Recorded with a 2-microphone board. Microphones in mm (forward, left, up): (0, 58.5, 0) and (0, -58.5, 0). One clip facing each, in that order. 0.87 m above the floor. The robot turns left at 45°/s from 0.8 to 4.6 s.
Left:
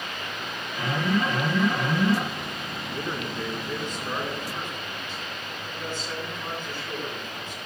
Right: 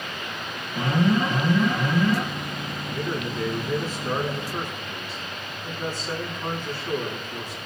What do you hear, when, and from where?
0.8 s an alarm: 135° right, 9.5 m; by 2.2 s 160° left, 9.5 m
2.9 s a man speaking: 40° left, 8.5 m; by 7.6 s 35° right, 8.5 m